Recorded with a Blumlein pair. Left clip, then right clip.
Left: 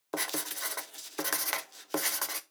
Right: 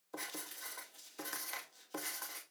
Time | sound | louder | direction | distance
0.1 | writing | left 11 dB | 50° left | 0.8 m